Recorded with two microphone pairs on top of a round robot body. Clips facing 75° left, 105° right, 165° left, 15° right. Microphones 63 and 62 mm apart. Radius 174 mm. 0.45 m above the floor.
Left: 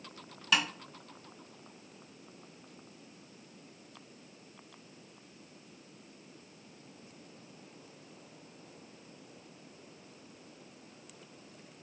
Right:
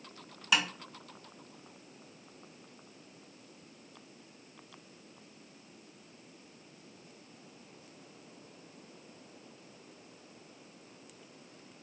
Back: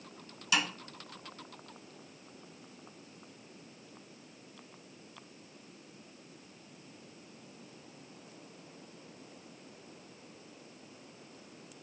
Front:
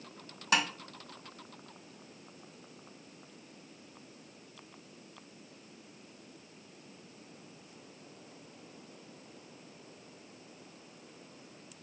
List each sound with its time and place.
0.5 s tapping: 10° right, 0.9 m